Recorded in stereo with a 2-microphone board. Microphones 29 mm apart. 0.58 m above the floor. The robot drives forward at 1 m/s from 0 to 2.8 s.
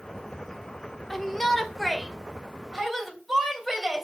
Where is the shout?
10° left (ahead or behind), 1.4 m; by 4.0 s 5° left (ahead or behind), 3 m.